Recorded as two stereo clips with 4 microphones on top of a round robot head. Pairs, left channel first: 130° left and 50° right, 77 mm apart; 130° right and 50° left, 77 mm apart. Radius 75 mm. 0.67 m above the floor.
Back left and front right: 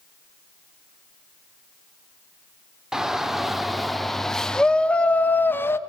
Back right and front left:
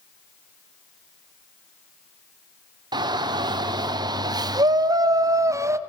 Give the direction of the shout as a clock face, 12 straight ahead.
11 o'clock.